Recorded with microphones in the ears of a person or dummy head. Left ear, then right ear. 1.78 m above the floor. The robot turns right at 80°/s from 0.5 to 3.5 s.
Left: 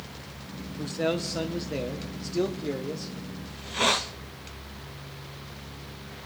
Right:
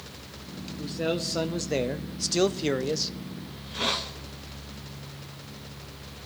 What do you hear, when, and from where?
0.8 s a man speaking: 140° left, 0.7 m; by 3.1 s 30° right, 0.7 m
3.5 s a hiss: 30° left (ahead or behind), 0.6 m